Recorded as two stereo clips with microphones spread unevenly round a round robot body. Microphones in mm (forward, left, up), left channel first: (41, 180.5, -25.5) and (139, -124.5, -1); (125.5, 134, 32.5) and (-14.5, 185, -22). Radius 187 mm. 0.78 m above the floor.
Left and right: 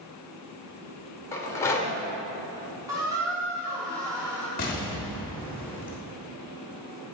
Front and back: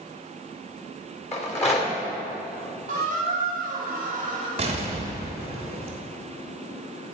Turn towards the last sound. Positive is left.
turn(degrees=165)